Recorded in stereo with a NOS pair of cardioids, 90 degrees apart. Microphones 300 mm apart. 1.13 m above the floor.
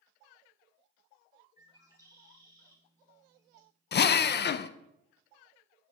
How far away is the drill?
About 0.6 m.